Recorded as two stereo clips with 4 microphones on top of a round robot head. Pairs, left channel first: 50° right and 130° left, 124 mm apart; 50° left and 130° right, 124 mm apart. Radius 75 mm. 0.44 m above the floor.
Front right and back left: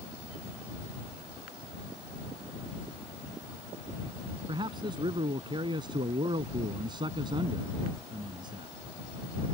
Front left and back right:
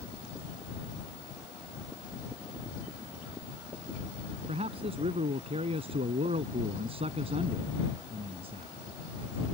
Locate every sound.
4.5 s a man speaking: 175° right